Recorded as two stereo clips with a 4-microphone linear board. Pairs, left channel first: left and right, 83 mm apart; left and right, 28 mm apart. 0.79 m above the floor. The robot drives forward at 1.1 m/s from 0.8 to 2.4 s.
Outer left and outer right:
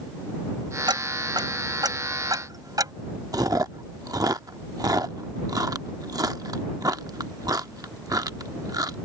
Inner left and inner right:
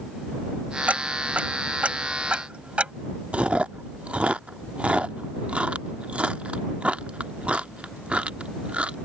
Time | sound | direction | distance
0.9 | ticking | 65° right (ahead or behind) | ?
3.3 | chewing | 50° right (ahead or behind) | ?